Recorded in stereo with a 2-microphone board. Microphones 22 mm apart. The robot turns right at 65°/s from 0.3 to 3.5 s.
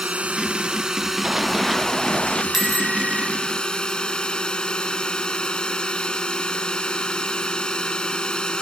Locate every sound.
0.0 s a drone: 70° right; by 8.6 s 140° left
1.2 s running footsteps: 35° right (ahead or behind); by 2.4 s 40° left (ahead or behind)
2.5 s a bicycle bell: 165° right; by 3.3 s 115° right